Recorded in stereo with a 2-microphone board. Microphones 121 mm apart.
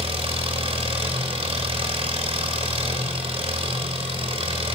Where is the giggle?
I don't hear a giggle.